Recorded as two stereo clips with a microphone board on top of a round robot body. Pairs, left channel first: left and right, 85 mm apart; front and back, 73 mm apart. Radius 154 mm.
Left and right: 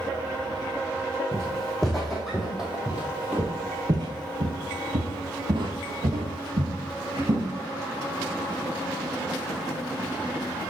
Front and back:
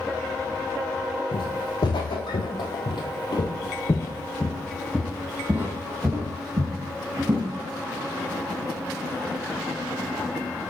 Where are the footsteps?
5° left, 2 m; by 7.4 s 135° right, 2 m.